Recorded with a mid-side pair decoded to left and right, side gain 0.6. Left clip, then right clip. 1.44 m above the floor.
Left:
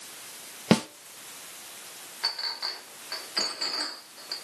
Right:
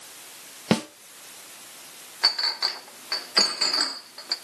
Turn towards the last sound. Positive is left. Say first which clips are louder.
# right 7 dB
turn(degrees=-45)